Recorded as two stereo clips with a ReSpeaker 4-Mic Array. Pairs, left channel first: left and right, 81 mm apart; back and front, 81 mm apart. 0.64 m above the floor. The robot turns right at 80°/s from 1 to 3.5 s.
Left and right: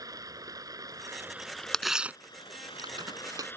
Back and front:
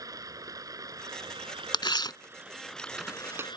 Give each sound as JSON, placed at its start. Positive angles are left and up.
{"t": 0.0, "sound": "running water", "azimuth_deg": -45}
{"t": 1.7, "sound": "tearing paper", "azimuth_deg": 175}